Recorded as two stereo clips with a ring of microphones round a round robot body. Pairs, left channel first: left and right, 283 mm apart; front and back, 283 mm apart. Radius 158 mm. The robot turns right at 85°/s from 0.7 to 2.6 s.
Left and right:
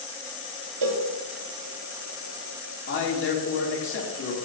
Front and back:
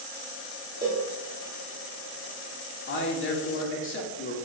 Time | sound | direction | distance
0.8 | a cowbell | 105° right | 0.8 m
2.9 | a man speaking | 45° left | 1.8 m